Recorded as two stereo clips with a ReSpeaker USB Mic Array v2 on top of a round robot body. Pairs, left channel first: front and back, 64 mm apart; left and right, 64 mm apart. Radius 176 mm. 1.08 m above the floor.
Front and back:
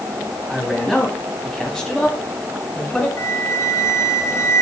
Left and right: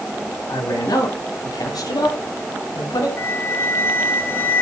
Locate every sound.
0.5 s a man speaking: 100° left, 5 m; by 3.1 s 80° left, 4.5 m
3.2 s a flute: 40° left, 3 m